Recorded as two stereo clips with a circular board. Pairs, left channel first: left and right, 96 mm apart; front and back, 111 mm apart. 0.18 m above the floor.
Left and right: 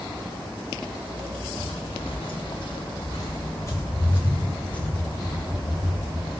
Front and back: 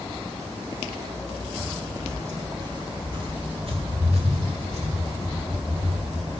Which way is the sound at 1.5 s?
105° left.